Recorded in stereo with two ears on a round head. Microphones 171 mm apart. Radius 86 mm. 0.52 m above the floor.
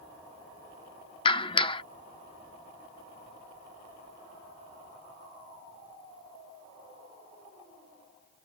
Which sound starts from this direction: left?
A clap, at 1.2 s.